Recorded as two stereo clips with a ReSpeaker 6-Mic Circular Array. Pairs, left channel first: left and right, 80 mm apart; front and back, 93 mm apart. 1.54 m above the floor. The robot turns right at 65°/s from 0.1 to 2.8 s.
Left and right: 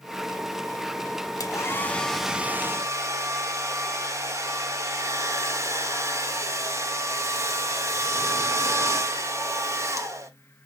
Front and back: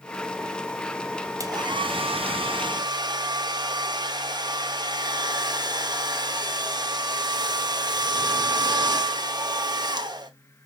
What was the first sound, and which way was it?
A hair dryer, 130° left.